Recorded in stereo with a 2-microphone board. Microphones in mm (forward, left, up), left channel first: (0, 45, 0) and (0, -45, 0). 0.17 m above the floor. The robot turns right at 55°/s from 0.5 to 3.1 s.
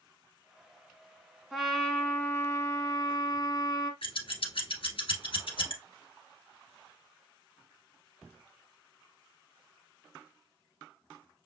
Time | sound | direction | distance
1.5 | a trumpet | 10° right | 0.9 m
4.0 | scissors | 65° left (ahead or behind) | 1.3 m